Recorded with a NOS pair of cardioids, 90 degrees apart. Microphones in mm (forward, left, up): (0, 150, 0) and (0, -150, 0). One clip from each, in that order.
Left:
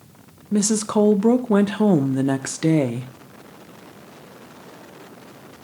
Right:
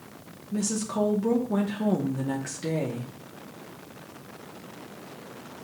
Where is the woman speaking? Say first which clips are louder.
Left 9 dB; 60° left, 0.8 m.